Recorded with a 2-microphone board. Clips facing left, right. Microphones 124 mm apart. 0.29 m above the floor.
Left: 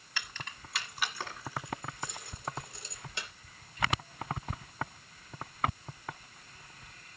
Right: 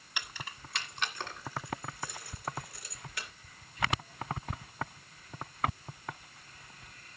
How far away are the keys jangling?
About 1.2 m.